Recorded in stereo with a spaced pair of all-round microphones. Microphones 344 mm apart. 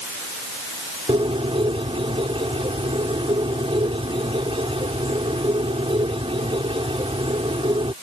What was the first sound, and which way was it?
A bird, 15° right (ahead or behind).